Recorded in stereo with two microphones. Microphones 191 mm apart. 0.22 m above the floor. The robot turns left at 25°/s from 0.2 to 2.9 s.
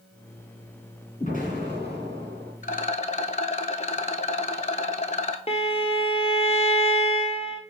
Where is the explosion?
60° left, 2.5 m; by 2.5 s 25° left, 2.5 m.